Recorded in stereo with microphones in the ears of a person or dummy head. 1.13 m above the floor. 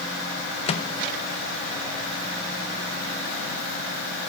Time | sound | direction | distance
0.7 | a microwave | 30° left (ahead or behind) | 0.9 m